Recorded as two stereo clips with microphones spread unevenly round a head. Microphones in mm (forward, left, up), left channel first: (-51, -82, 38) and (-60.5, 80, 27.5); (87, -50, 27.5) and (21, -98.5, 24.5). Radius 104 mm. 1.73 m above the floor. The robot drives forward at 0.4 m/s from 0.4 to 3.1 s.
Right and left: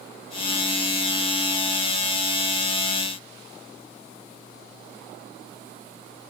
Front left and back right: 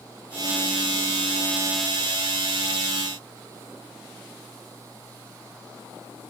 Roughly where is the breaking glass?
No breaking glass in this recording.